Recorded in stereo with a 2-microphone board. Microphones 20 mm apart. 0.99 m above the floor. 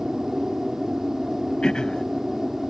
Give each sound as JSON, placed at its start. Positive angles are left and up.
{"t": 0.0, "sound": "an aircraft", "side_deg": -25}
{"t": 1.6, "sound": "throat clearing", "side_deg": 45}